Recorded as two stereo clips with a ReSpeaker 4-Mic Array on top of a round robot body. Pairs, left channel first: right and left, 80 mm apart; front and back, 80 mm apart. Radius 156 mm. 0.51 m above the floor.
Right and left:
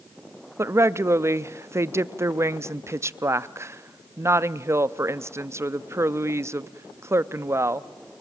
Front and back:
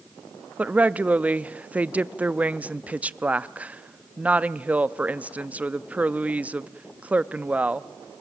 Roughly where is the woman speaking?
Behind left.